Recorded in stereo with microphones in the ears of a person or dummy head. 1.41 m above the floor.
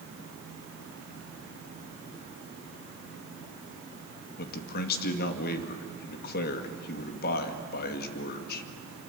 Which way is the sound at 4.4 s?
60° left (ahead or behind).